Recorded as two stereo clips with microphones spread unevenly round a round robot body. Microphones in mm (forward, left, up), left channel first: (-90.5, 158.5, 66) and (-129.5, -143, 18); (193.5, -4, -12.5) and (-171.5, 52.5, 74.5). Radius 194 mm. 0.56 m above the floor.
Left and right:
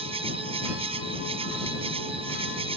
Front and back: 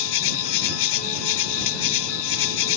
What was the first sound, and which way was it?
An insect, 20° right.